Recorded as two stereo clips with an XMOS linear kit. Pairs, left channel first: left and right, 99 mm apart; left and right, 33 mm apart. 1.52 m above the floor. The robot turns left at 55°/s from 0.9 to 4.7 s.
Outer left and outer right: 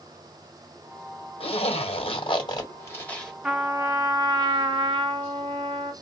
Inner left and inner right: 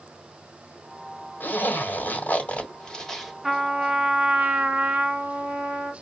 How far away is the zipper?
About 1.4 m.